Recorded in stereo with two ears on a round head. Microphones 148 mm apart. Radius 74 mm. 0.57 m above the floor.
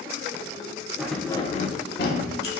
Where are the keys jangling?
5° right (ahead or behind), 0.6 m; by 2.5 s 70° left (ahead or behind), 1.1 m.